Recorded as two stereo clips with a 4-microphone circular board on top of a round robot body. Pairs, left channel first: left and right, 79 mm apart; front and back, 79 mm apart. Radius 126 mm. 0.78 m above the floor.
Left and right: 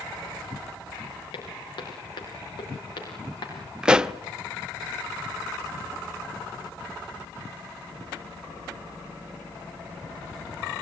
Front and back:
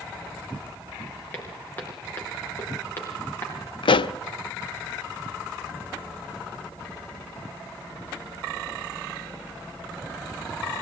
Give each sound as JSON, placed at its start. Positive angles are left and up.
{"t": 1.3, "sound": "footsteps", "azimuth_deg": 70, "distance_m": 7.5}
{"t": 3.8, "sound": "a pop", "azimuth_deg": -10, "distance_m": 0.7}